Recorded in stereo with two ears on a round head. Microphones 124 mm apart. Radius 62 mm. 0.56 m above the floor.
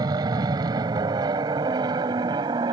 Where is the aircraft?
30° right (ahead or behind).